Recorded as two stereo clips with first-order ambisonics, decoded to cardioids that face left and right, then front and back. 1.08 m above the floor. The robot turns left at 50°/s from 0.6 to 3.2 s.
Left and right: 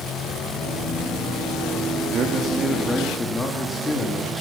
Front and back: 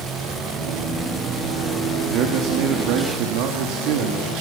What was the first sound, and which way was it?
A man speaking, 135° right.